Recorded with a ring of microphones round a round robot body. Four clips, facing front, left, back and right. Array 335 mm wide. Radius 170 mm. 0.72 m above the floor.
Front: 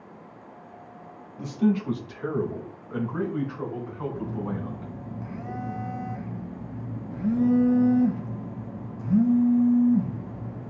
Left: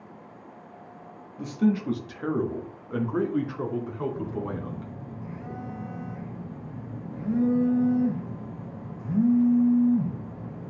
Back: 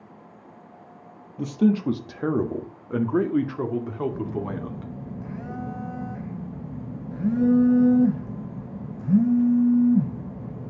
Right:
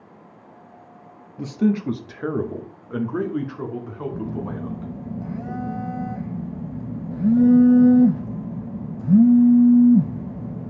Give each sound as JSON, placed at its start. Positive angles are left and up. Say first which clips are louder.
{"t": 1.4, "sound": "a man speaking", "louder": "right 3 dB, back 3 dB", "azimuth_deg": -140, "distance_m": 1.2}
{"t": 4.1, "sound": "a phone buzzing", "louder": "right 2 dB, back 2 dB", "azimuth_deg": -110, "distance_m": 1.6}